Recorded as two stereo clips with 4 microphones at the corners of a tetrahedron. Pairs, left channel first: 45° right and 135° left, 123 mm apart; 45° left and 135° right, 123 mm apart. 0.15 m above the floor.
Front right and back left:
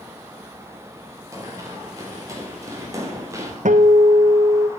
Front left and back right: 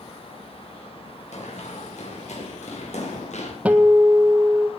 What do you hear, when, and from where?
1.3 s running footsteps: 70° left, 7.5 m
3.6 s a guitar: 145° left, 1.5 m